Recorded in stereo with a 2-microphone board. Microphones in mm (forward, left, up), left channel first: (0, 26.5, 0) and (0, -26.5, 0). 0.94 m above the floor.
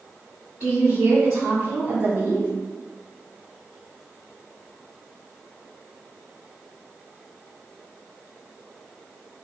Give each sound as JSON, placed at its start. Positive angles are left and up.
{"t": 0.6, "sound": "a woman speaking", "side_deg": -55, "distance_m": 1.3}